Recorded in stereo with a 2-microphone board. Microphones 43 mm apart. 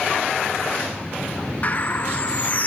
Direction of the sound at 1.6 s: 35° left (ahead or behind).